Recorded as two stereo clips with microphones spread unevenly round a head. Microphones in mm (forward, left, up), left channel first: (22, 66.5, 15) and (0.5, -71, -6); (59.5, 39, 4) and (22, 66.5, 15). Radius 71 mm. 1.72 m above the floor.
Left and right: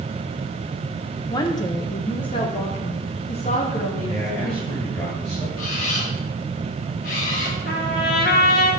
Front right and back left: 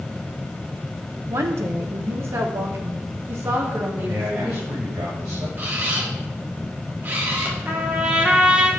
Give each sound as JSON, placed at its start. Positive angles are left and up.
{"t": 1.3, "sound": "a woman speaking", "azimuth_deg": 145, "distance_m": 1.3}
{"t": 4.0, "sound": "a man speaking", "azimuth_deg": 150, "distance_m": 4.0}
{"t": 5.6, "sound": "a camera shutter", "azimuth_deg": 110, "distance_m": 2.5}
{"t": 7.7, "sound": "a trumpet", "azimuth_deg": 90, "distance_m": 3.0}